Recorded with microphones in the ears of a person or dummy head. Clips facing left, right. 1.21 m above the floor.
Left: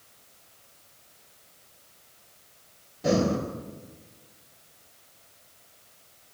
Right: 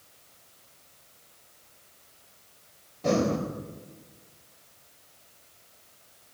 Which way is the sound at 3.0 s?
5° left (ahead or behind).